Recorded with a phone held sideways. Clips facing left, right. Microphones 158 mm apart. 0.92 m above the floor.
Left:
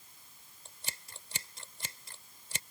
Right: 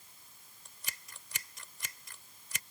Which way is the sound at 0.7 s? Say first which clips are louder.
Left 3 dB; 30° left (ahead or behind).